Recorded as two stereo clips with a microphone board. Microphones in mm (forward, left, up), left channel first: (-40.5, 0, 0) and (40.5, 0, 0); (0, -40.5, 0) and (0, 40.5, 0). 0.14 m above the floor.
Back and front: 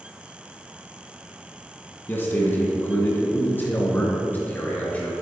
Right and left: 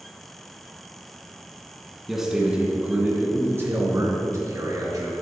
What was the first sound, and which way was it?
A man speaking, 175° left.